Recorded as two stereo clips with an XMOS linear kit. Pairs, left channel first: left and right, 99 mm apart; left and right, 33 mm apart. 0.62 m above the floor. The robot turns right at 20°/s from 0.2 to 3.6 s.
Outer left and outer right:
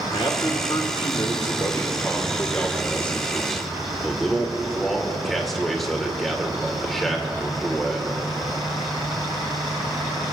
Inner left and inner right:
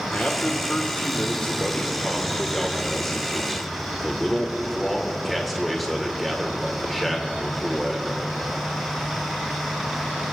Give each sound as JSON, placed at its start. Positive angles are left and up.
{"t": 0.1, "sound": "a man speaking", "azimuth_deg": 110, "distance_m": 2.0}